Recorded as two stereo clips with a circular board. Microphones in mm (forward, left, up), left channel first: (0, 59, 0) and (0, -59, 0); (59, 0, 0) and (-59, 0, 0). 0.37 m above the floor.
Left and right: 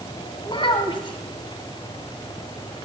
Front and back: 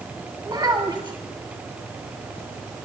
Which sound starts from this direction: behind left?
A child speaking, at 0.4 s.